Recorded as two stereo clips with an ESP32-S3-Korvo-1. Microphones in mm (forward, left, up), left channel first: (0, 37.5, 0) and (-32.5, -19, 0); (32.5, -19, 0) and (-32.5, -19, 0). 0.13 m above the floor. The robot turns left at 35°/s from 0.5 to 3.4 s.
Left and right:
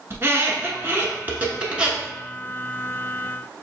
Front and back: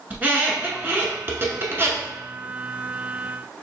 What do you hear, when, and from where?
0.1 s a squeak: 135° right, 1.0 m; by 2.1 s 170° left, 1.0 m